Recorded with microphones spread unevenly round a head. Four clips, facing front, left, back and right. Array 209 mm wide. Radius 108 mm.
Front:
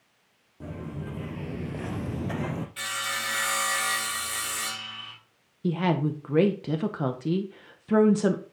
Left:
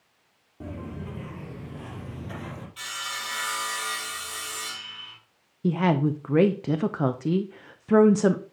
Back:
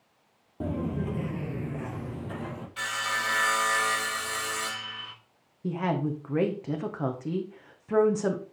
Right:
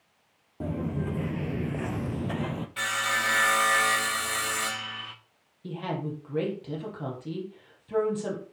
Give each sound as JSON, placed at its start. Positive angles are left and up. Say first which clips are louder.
{"t": 0.6, "sound": "footsteps", "louder": "right 6 dB, back 7 dB", "azimuth_deg": -155, "distance_m": 1.8}
{"t": 2.8, "sound": "sawing", "louder": "right 9 dB, back 2 dB", "azimuth_deg": -90, "distance_m": 2.0}
{"t": 5.6, "sound": "a woman speaking", "louder": "left 10 dB, front 3 dB", "azimuth_deg": 60, "distance_m": 1.3}